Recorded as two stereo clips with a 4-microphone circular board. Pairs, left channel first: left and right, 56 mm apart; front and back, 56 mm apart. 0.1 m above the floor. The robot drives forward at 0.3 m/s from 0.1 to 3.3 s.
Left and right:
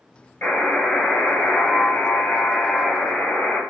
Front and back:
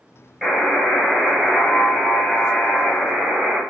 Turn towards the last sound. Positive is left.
turn(degrees=130)